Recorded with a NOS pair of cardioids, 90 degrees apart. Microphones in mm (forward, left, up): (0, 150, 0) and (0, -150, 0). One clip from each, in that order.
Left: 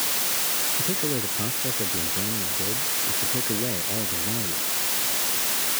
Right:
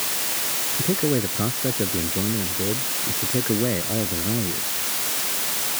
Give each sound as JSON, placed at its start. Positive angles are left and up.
{"t": 0.8, "sound": "a man speaking", "azimuth_deg": -50}